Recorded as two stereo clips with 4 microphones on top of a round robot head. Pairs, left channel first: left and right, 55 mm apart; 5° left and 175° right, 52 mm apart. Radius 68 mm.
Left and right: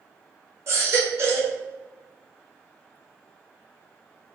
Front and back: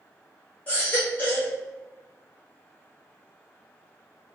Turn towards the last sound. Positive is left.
turn(degrees=-55)